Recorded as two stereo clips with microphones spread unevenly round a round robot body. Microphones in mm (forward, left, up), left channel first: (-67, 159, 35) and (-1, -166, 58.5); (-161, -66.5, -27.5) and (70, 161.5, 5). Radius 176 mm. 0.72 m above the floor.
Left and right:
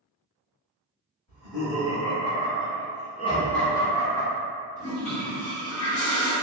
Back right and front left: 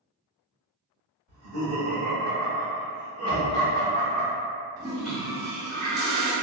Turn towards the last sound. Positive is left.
turn(degrees=125)